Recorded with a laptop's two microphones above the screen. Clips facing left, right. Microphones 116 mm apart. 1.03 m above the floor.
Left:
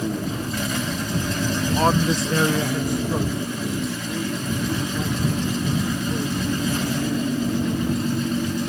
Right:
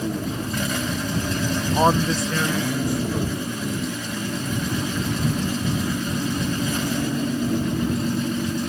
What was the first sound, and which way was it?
A man speaking, 35° right (ahead or behind).